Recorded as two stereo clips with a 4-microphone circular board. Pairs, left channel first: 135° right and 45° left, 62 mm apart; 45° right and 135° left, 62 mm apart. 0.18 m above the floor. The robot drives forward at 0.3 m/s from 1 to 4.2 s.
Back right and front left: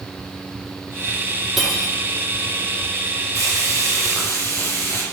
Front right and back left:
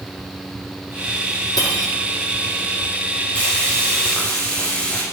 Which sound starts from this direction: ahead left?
Frying, at 3.4 s.